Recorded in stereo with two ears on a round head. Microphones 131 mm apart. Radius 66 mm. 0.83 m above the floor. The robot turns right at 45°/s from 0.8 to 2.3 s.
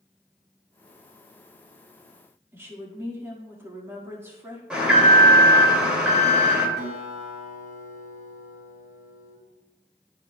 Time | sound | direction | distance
2.5 | a woman speaking | 15° right (ahead or behind) | 1.7 m
4.7 | an alarm | 10° right (ahead or behind) | 1.8 m
6.8 | a guitar | 55° right (ahead or behind) | 3 m